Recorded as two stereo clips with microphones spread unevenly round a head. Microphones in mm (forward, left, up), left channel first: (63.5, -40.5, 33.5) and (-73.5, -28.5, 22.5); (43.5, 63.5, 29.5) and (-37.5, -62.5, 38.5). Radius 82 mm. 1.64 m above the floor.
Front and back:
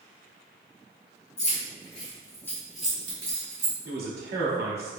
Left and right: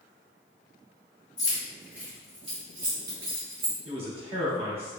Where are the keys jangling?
30° right, 1.1 m; by 3.8 s 125° right, 1.2 m.